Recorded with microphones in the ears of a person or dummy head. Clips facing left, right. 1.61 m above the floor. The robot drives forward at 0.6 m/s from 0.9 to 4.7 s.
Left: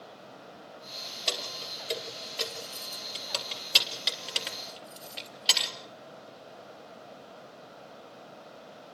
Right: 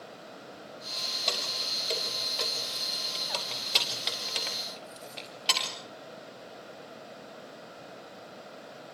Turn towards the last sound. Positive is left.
turn(degrees=10)  # may be behind; listen again after turning